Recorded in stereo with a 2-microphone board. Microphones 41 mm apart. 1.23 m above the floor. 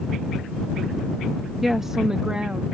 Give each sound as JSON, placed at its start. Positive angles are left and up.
{"t": 1.6, "sound": "a woman speaking", "side_deg": -5}